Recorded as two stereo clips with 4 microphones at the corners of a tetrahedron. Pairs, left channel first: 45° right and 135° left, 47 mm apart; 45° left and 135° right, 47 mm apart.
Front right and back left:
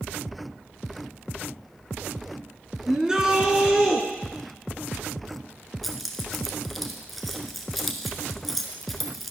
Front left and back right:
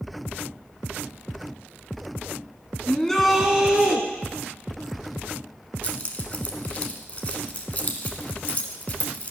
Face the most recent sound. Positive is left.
turn(degrees=40)